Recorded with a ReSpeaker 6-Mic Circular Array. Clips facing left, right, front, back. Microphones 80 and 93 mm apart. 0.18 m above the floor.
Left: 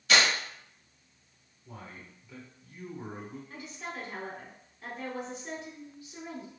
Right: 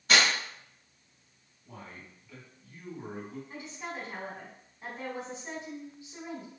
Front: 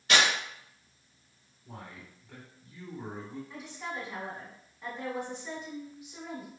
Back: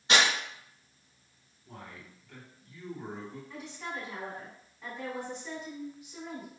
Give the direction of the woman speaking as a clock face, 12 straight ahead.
3 o'clock.